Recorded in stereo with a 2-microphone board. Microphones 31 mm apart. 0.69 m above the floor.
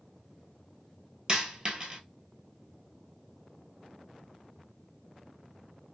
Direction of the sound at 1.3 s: 30° right (ahead or behind).